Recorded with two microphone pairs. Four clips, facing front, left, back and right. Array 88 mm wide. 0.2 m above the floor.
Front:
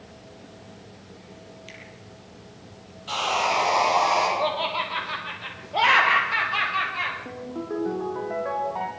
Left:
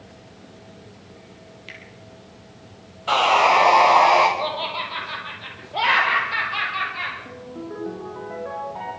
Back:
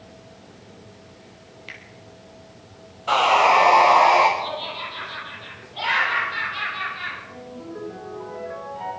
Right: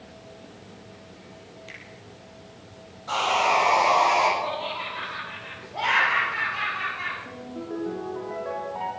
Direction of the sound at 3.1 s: 135° left.